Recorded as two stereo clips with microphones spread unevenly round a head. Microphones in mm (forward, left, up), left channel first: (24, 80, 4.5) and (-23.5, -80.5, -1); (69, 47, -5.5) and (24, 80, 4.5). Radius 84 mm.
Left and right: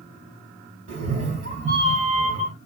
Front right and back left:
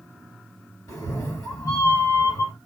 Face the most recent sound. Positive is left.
turn(degrees=-65)